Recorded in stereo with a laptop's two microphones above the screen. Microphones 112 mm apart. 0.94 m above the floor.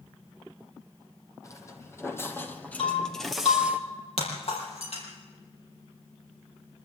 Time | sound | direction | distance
1.4 | footsteps | 30° left (ahead or behind) | 2 m
2.8 | breaking glass | 65° left (ahead or behind) | 6 m